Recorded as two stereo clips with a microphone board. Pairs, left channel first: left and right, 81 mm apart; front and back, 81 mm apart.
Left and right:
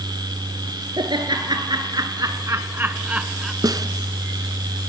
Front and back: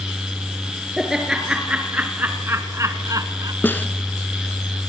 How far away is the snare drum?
About 1.4 m.